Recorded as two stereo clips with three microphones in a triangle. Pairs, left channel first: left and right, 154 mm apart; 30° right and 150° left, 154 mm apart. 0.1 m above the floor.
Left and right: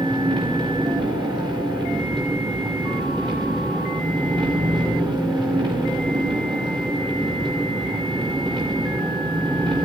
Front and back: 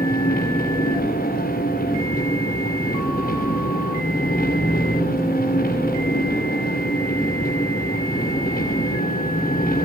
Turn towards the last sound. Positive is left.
turn(degrees=-30)